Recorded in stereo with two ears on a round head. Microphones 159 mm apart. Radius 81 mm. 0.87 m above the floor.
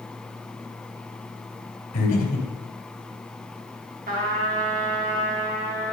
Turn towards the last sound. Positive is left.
turn(degrees=-50)  # may be behind; listen again after turning